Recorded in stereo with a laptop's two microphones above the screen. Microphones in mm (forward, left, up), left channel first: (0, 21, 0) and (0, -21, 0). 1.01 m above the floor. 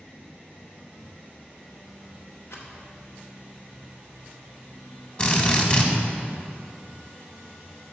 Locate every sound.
2.5 s a rattle: 80° left, 1.1 m
5.2 s a drill: 30° left (ahead or behind), 1.3 m